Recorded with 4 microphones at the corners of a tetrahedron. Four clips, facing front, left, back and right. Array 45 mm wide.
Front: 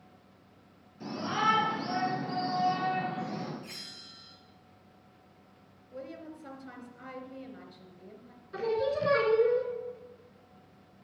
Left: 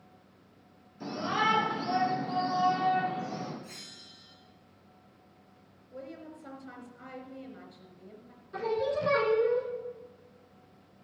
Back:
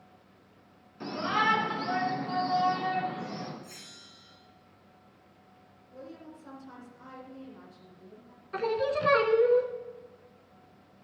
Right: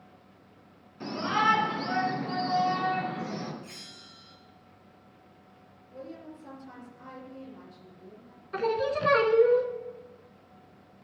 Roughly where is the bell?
Ahead right.